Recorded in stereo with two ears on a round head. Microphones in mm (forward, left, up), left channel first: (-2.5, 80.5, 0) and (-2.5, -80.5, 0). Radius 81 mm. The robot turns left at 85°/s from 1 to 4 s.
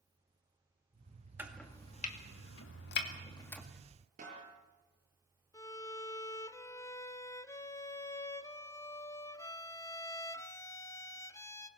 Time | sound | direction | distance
1.4 | chopping | 15° right (ahead or behind) | 2.0 m
4.2 | a snare drum | 45° right (ahead or behind) | 9 m
5.5 | a violin | 20° left (ahead or behind) | 0.8 m